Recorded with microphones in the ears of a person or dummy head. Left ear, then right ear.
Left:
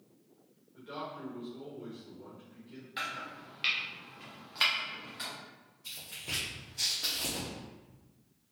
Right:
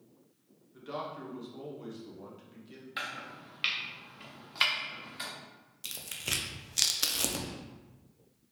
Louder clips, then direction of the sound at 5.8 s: Right 4 dB; 70° right (ahead or behind).